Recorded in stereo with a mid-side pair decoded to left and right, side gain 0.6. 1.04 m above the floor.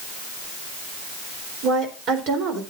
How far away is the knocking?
I don't hear knocking.